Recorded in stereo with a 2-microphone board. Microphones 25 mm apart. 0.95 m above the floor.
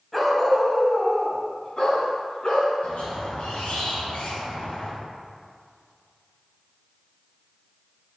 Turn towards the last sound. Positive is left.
turn(degrees=75)  # may be behind; listen again after turning